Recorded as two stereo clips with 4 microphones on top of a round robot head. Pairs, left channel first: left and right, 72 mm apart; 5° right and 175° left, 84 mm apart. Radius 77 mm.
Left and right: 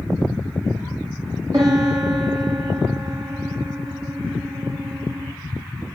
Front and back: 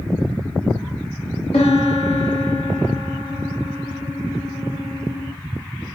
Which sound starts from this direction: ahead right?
A piano, at 1.5 s.